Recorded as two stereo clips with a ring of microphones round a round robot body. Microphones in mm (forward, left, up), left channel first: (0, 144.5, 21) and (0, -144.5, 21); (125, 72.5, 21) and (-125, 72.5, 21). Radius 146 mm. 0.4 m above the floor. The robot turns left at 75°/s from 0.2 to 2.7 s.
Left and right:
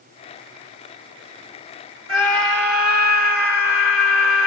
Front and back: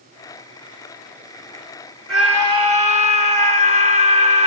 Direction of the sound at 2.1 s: 85° right.